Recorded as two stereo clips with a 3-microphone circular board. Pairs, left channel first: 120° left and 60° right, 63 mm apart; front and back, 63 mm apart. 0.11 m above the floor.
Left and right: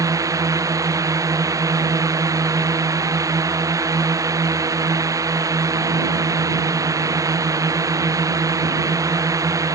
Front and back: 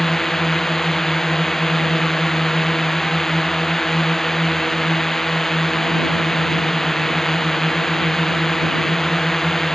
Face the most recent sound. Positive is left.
turn(degrees=-85)